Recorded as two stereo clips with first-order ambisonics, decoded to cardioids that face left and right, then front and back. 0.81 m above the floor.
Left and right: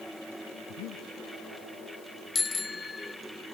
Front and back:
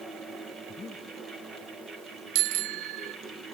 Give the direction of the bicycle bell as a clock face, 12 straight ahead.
6 o'clock.